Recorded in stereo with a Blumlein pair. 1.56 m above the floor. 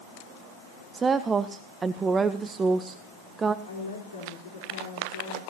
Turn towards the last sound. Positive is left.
turn(degrees=70)